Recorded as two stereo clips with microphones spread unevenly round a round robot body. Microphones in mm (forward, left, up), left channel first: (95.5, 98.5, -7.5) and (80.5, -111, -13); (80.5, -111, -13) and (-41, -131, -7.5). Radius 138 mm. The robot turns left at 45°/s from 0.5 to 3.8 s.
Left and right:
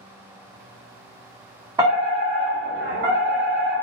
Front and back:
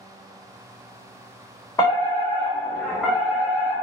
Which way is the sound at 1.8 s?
35° right.